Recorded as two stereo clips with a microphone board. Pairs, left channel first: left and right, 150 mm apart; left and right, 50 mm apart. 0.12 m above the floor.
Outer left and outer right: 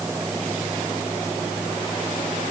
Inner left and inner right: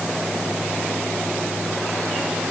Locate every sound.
Only background noise.